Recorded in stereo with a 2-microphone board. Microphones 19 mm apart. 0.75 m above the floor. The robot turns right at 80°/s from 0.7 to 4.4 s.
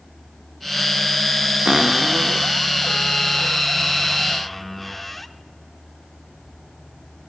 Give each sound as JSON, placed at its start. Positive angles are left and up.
{"t": 1.6, "sound": "a cupboard door", "azimuth_deg": -45, "distance_m": 0.8}